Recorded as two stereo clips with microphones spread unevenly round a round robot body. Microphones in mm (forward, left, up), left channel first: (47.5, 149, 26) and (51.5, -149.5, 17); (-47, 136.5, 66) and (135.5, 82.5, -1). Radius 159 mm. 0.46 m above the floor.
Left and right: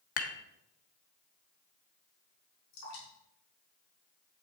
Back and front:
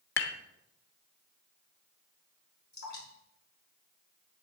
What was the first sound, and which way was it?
Dishes clattering, 135° left.